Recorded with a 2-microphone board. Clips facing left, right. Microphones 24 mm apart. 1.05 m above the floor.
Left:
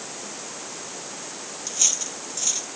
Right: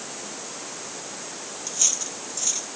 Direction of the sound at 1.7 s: 10° left (ahead or behind).